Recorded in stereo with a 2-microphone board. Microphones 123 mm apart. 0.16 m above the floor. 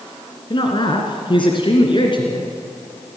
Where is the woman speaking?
45° left (ahead or behind), 2.5 m.